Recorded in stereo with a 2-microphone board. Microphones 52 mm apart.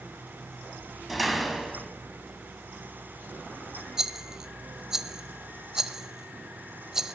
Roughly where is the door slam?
Centre.